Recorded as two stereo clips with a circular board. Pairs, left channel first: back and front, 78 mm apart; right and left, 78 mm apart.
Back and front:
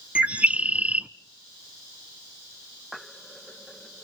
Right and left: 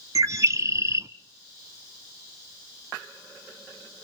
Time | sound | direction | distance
0.1 | a bird | 65° left | 0.6 m